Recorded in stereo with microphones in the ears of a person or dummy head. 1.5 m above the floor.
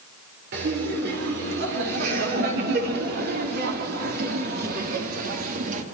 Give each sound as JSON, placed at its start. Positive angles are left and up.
{"t": 0.5, "sound": "laughter", "side_deg": -65, "distance_m": 5.5}